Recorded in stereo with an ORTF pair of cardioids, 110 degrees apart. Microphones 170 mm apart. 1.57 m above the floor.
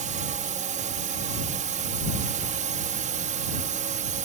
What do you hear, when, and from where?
0.0 s a drone: 50° right